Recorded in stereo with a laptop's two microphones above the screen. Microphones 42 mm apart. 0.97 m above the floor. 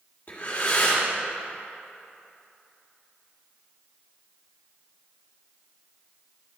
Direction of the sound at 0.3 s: 35° left (ahead or behind).